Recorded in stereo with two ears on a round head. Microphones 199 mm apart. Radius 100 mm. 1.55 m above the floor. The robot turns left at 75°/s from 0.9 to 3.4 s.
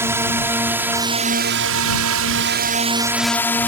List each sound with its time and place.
0.0 s a drone: 10° right (ahead or behind); by 3.7 s 10° left (ahead or behind)